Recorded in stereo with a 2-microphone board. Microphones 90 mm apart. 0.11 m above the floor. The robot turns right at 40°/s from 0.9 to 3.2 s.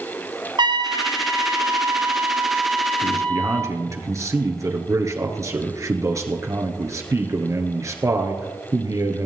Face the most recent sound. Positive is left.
turn(degrees=-35)  # may be behind; listen again after turning